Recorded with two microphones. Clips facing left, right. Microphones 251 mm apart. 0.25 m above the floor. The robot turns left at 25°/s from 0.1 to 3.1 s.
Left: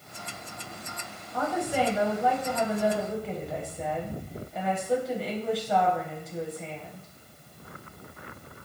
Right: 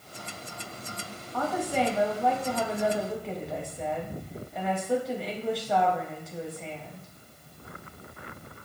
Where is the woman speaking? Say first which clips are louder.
Even; 15° left (ahead or behind), 1.0 m; by 7.1 s centre (ahead or behind), 1.0 m.